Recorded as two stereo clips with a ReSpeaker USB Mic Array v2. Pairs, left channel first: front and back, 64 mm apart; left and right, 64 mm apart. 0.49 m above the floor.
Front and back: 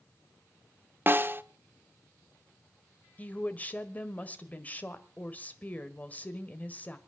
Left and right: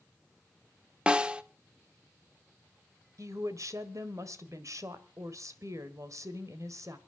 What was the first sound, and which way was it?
A snare drum, 155° right.